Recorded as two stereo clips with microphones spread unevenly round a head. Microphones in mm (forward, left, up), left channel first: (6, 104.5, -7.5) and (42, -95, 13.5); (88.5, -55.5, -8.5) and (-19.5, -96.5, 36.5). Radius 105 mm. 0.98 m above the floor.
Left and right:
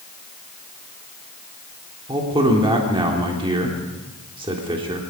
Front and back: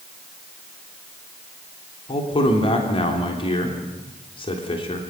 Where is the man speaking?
15° right, 3.5 m.